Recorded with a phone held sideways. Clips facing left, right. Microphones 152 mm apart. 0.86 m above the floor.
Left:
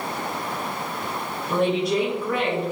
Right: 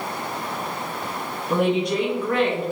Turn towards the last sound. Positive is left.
turn(degrees=15)  # may be behind; listen again after turning